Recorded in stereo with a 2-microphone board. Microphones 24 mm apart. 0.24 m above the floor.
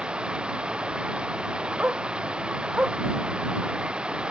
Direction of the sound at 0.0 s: 45° right (ahead or behind).